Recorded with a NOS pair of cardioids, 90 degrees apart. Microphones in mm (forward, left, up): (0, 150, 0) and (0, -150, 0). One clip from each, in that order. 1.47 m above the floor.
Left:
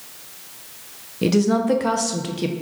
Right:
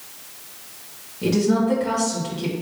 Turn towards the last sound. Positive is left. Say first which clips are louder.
# left 1 dB
turn(degrees=50)